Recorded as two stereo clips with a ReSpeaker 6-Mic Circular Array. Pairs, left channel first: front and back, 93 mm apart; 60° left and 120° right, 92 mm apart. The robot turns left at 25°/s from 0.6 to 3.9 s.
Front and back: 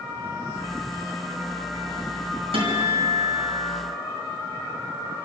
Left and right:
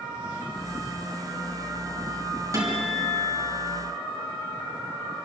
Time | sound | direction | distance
2.5 | a guitar | 175° right | 6.5 m